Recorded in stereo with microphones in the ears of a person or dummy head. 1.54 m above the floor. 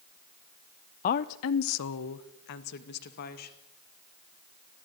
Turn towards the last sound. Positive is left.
turn(degrees=50)  # may be behind; listen again after turning